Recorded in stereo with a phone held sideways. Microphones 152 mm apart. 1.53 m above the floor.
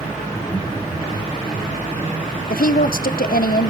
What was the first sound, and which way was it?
Laughter, 30° left (ahead or behind).